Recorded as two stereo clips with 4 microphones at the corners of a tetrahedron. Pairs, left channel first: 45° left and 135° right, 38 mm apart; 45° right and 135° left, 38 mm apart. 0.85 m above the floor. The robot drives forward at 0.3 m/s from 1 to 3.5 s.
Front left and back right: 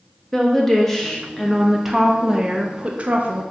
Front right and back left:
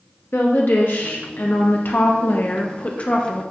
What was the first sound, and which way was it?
A woman speaking, 35° right.